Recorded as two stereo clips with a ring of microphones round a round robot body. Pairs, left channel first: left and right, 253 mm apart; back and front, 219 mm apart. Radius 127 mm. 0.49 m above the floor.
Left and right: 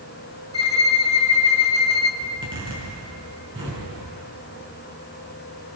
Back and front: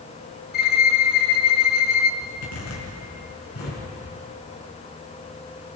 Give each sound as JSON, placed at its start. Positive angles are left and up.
{"t": 0.5, "sound": "a violin", "azimuth_deg": 150, "distance_m": 1.4}
{"t": 2.2, "sound": "a zipper", "azimuth_deg": -160, "distance_m": 6.5}